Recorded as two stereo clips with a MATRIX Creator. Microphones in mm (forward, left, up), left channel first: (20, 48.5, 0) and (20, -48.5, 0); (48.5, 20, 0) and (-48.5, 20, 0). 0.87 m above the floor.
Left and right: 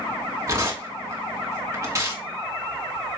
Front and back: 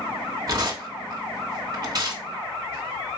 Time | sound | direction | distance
0.5 | tearing paper | 140° right | 1.8 m